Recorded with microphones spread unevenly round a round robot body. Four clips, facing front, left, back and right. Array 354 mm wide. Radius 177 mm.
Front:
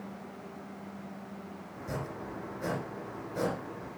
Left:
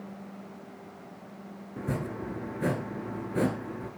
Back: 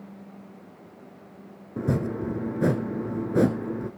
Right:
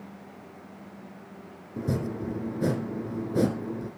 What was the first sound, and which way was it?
Chopping, 165° right.